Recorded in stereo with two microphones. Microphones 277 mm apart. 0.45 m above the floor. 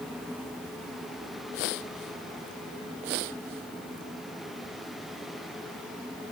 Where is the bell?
I don't hear a bell.